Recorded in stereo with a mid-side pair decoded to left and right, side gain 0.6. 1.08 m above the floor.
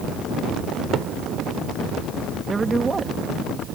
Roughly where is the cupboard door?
Ahead right.